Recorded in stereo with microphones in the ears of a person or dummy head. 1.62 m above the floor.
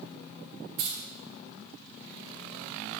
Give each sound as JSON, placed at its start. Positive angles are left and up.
{"t": 0.8, "sound": "keys jangling", "side_deg": -45, "distance_m": 0.9}